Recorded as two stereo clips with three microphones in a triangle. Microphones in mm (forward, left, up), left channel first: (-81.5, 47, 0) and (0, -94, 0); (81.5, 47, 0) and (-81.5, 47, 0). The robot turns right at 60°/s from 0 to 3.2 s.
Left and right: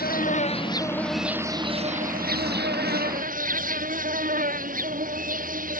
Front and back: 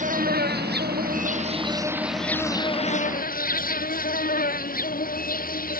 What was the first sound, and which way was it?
An insect, 140° left.